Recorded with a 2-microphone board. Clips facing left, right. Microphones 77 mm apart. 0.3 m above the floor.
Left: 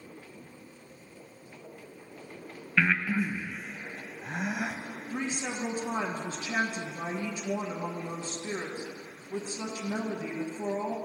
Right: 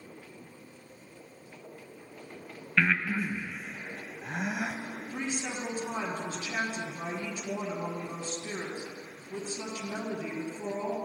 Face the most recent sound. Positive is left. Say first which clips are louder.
# left 2 dB
turn(degrees=25)  # may be behind; listen again after turning